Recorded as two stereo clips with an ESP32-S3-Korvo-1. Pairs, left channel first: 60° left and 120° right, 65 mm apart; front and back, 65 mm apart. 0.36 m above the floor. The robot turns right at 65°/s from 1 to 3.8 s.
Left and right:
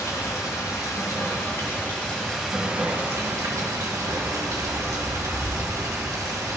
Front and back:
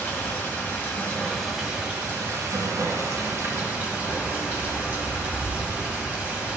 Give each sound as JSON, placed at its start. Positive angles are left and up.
{"t": 0.0, "sound": "running water", "azimuth_deg": 60, "distance_m": 1.6}